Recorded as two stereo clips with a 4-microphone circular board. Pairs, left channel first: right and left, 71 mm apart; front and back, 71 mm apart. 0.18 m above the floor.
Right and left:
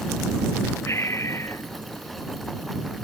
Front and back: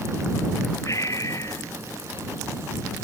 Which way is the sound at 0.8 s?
40° right.